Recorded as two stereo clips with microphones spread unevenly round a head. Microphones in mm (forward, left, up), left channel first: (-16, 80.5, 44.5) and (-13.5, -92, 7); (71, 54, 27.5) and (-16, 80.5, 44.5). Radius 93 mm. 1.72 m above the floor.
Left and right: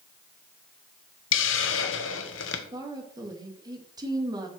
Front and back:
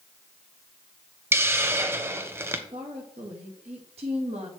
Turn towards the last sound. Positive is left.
turn(degrees=-160)